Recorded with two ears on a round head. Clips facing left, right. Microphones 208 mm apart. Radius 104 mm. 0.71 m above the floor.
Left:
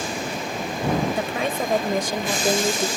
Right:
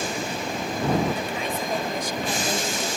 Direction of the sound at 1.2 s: 55° left (ahead or behind).